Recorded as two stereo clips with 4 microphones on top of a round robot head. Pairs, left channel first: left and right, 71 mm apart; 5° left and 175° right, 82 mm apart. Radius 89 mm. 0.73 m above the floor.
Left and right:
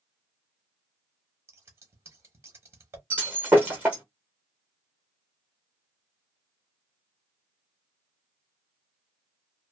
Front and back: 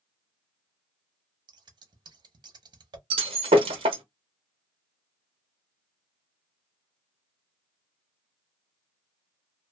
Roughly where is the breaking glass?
Behind.